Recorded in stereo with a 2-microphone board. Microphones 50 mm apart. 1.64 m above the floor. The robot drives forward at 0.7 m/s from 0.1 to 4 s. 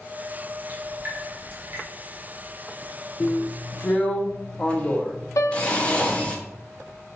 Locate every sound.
0.7 s dripping: 30° right (ahead or behind), 1.9 m; by 1.8 s 45° right (ahead or behind), 1.2 m
3.2 s a drill: 35° left (ahead or behind), 0.5 m; by 6.4 s 25° left (ahead or behind), 0.8 m
5.4 s a piano: 75° left (ahead or behind), 0.6 m